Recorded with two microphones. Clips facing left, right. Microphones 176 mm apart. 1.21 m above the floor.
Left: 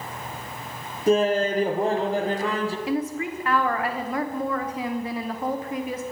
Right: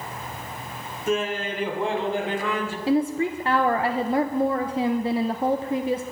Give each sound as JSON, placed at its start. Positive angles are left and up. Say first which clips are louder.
{"t": 1.1, "sound": "laughter", "louder": "left 6 dB", "side_deg": 35, "distance_m": 0.7}
{"t": 2.9, "sound": "a woman speaking", "louder": "right 4 dB", "side_deg": -30, "distance_m": 0.7}